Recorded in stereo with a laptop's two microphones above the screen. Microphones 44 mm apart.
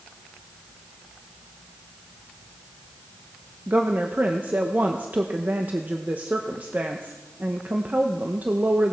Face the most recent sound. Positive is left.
turn(degrees=-45)  # may be behind; listen again after turning